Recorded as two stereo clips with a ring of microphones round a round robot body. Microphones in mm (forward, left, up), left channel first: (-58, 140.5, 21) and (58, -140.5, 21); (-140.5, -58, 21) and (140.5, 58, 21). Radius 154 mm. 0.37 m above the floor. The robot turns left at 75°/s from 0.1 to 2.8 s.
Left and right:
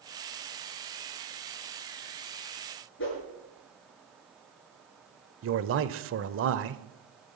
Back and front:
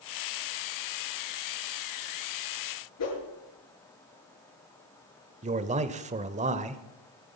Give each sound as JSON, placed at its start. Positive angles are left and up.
{"t": 3.0, "sound": "a whoosh", "azimuth_deg": 165, "distance_m": 8.0}
{"t": 5.4, "sound": "a man speaking", "azimuth_deg": -40, "distance_m": 1.2}